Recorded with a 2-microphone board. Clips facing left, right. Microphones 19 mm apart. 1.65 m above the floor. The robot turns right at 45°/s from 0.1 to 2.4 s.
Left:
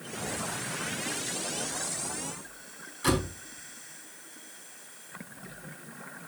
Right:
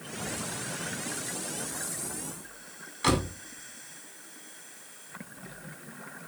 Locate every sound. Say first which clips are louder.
3.0 s a door slam: right 1 dB; 25° right (ahead or behind), 5.5 m